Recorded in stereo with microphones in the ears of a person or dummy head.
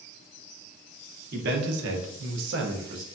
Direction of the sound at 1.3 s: 55° right (ahead or behind).